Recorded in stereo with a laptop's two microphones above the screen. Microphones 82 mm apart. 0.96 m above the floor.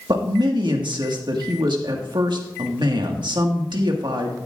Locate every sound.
0.1 s a man speaking: 70° right (ahead or behind), 1.5 m